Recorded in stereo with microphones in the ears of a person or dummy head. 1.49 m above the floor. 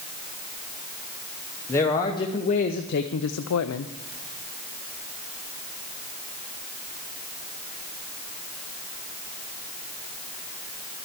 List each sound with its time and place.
1.7 s a man speaking: 15° left (ahead or behind), 1.0 m; by 3.9 s 75° left (ahead or behind), 0.6 m